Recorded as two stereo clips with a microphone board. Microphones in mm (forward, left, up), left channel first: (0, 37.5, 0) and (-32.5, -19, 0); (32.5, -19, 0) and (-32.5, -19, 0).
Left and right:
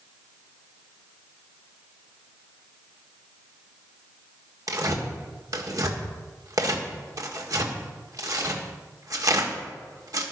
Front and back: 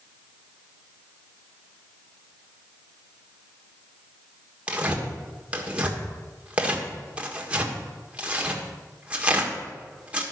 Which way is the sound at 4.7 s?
110° right.